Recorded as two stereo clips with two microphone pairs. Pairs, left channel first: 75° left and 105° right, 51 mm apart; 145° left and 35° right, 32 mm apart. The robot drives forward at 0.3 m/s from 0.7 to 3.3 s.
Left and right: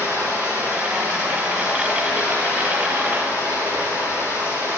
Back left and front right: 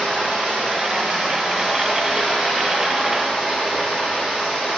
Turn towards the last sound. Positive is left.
turn(degrees=-115)